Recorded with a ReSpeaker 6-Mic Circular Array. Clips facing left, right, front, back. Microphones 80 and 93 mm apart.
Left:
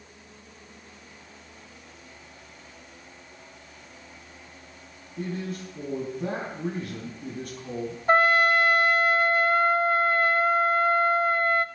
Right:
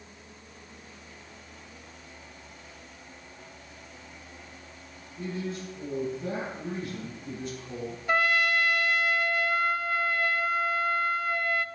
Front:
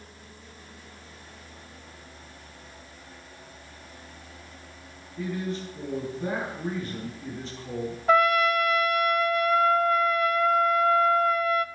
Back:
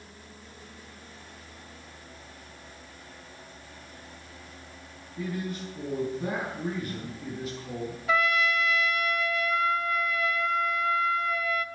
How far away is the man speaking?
About 5 m.